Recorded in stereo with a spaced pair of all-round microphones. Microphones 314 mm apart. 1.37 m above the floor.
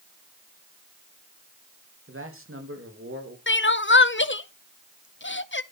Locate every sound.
2.1 s a man speaking: 40° right (ahead or behind), 2.5 m
3.5 s crying: 40° left (ahead or behind), 0.6 m